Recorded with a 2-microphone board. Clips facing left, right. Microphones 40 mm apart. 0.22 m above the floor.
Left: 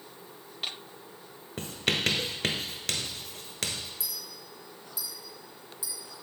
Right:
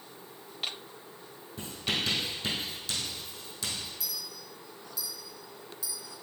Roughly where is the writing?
Left.